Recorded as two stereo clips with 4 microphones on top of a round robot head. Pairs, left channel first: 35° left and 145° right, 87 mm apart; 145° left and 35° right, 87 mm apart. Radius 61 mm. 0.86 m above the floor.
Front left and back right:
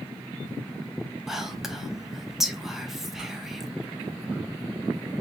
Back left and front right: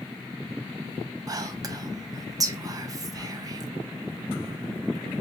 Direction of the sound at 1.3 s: 60° right.